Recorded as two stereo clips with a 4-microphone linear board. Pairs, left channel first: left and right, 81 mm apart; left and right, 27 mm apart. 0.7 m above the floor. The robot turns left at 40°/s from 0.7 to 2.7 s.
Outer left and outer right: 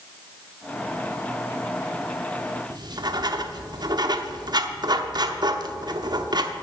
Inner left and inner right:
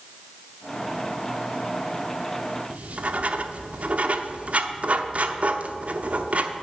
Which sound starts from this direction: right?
Writing, at 2.7 s.